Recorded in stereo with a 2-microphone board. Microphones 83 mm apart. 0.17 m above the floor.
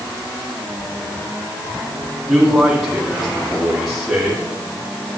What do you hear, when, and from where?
2.3 s a man speaking: centre (ahead or behind), 5.5 m